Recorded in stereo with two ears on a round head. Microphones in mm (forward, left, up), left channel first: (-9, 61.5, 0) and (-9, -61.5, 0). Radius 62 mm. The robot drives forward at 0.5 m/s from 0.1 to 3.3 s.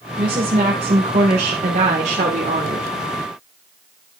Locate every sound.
0.2 s a woman speaking: 40° right (ahead or behind), 2.0 m; by 2.9 s 60° right (ahead or behind), 1.5 m